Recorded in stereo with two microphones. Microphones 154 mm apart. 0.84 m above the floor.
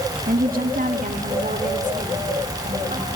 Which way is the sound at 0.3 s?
65° right (ahead or behind).